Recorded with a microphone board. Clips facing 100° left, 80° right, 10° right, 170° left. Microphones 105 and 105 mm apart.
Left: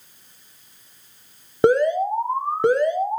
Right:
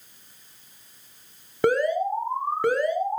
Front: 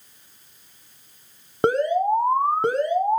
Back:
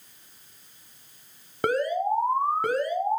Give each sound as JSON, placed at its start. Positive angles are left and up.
{"t": 1.6, "sound": "an alarm", "azimuth_deg": 45, "distance_m": 1.5}